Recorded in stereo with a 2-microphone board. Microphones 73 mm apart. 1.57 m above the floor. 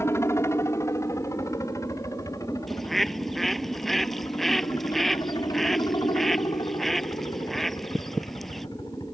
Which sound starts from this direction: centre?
A bird, at 2.7 s.